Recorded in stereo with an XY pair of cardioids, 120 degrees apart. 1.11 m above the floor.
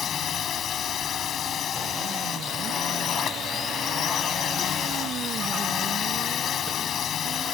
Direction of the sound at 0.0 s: 55° left.